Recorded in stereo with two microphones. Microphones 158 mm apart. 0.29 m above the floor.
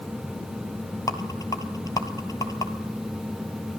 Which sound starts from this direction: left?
A rattle, at 1.1 s.